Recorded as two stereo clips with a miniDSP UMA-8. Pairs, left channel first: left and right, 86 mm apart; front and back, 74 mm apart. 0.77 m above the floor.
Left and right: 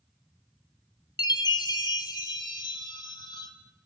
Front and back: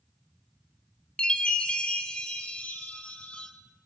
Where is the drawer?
No drawer in this recording.